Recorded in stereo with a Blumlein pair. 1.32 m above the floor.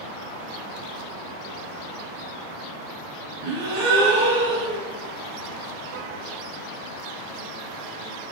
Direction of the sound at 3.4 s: 50° right.